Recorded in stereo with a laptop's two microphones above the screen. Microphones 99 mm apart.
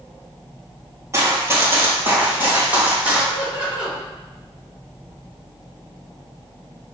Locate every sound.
1.1 s running footsteps: 30° right (ahead or behind), 1.1 m; by 3.2 s 10° right (ahead or behind), 2.0 m
3.3 s laughter: 10° right (ahead or behind), 1.9 m